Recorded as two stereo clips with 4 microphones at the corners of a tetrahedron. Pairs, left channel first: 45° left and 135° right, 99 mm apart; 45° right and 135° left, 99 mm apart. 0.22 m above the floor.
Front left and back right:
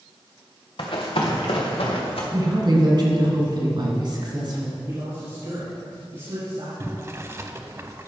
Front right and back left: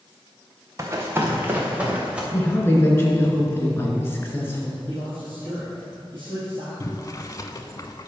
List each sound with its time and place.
0.8 s running footsteps: 75° left, 1.9 m; by 2.2 s 55° left, 3 m
2.3 s a woman speaking: 105° right, 2 m
4.9 s a man speaking: 175° right, 3 m
6.8 s boiling: 80° right, 0.6 m